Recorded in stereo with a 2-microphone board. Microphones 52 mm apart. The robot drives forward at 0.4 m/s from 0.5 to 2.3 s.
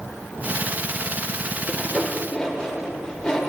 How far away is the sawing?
About 0.9 m.